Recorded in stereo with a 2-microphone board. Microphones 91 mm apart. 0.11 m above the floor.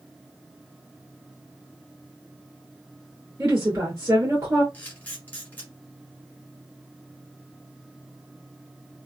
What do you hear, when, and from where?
3.4 s a woman speaking: 30° right (ahead or behind), 1.6 m
4.7 s a camera shutter: 20° left (ahead or behind), 1.3 m